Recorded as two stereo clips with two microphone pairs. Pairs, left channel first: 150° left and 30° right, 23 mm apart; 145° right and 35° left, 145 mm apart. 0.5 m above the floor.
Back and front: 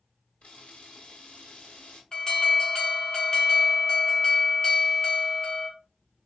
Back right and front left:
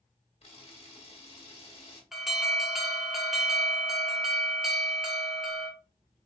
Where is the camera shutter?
Straight behind, 1.8 m.